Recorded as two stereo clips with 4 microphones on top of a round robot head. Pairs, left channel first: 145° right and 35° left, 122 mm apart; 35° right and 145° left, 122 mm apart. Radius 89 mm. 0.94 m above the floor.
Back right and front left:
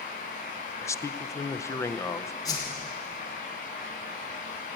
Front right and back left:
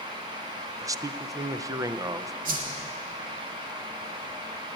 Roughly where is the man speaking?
Behind.